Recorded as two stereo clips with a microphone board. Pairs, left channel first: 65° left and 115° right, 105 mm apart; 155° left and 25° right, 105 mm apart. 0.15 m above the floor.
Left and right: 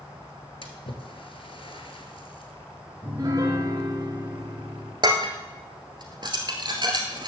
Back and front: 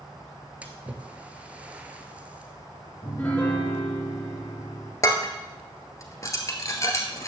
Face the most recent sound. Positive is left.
turn(degrees=-150)